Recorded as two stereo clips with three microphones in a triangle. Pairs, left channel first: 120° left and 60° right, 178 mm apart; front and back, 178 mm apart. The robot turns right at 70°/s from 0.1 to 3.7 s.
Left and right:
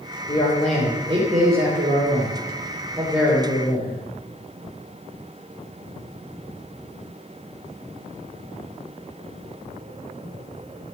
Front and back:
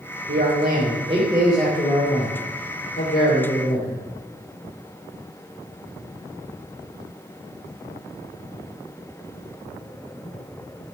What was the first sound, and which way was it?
A man speaking, 175° right.